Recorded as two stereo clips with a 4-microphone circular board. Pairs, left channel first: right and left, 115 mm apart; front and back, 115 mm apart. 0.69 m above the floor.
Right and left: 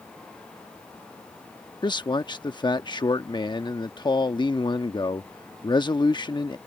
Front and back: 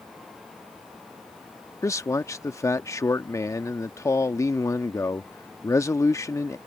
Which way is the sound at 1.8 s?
55° right.